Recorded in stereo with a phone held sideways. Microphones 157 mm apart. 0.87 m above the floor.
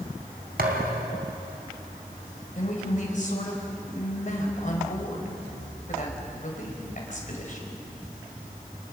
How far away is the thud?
About 3 m.